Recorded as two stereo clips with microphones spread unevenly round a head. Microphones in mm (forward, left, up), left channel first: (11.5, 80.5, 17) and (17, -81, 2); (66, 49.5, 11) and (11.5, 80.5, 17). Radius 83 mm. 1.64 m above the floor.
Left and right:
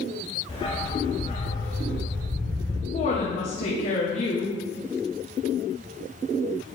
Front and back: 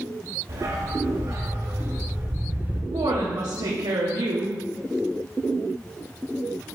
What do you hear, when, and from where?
0.5 s a dog barking: 150° left, 2.5 m; by 2.8 s 95° left, 3.5 m
2.9 s a woman speaking: 145° left, 1.2 m